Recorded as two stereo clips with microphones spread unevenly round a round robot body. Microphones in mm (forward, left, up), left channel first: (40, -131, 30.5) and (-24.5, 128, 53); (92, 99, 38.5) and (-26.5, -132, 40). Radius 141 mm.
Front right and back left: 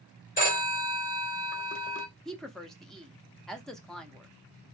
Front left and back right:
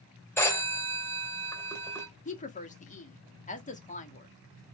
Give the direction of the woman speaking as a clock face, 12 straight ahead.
12 o'clock.